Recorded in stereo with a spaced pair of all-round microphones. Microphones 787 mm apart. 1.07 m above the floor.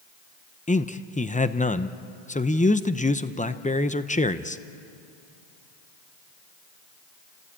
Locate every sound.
0.7 s a man speaking: 10° left (ahead or behind), 0.6 m